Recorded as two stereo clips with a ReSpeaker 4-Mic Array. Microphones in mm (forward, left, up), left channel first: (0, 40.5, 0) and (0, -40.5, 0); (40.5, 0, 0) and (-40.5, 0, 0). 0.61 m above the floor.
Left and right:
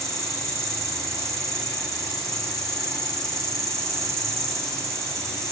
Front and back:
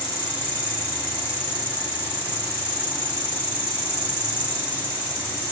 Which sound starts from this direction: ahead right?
An insect, at 0.0 s.